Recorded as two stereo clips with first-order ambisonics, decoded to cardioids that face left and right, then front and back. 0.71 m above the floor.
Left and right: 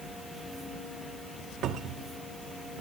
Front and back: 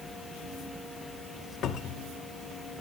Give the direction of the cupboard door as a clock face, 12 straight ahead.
2 o'clock.